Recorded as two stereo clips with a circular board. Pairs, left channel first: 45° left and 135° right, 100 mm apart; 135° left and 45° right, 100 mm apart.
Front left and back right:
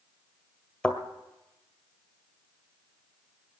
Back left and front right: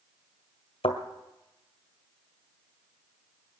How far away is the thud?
About 1.8 m.